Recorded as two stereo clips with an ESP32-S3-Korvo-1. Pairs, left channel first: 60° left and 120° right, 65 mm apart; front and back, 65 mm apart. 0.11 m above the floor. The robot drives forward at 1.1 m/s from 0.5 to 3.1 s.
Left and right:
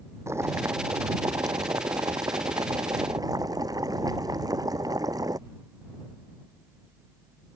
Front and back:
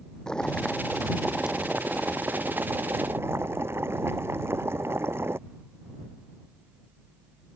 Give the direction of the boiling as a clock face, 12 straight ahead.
3 o'clock.